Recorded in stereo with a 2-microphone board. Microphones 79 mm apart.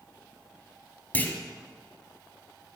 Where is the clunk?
20° left (ahead or behind), 1.8 m.